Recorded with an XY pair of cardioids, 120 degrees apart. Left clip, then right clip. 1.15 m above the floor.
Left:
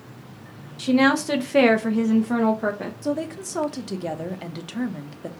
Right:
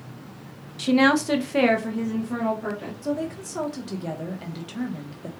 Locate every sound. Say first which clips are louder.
0.8 s a woman speaking: even; 15° right, 0.8 m; by 2.9 s 75° left, 1.0 m
3.0 s a woman speaking: left 1 dB; 30° left, 0.9 m